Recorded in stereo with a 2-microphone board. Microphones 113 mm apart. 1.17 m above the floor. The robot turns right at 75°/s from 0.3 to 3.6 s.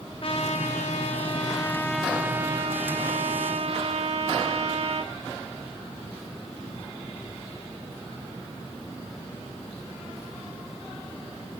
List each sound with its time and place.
0.2 s a trumpet: 50° left, 3 m; by 5.1 s 60° right, 3 m